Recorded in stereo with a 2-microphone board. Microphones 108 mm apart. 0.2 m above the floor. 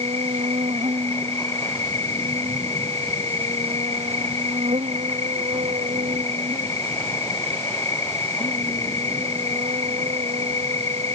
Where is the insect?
80° right.